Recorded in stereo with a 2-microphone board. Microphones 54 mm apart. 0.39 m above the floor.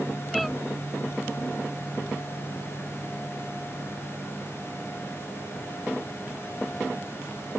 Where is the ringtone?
I don't hear a ringtone.